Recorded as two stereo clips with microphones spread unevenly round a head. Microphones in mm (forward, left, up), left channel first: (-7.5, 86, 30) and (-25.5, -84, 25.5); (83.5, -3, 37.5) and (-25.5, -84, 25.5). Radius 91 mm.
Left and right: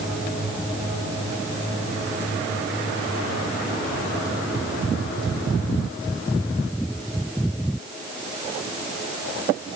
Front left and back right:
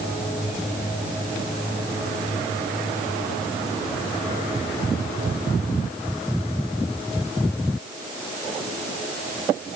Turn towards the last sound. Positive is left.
No sound to turn to.